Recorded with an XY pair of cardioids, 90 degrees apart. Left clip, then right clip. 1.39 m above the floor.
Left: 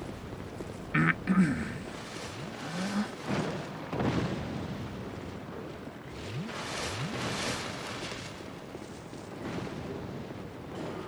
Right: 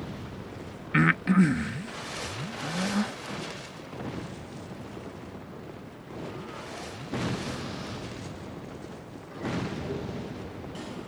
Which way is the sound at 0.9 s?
35° right.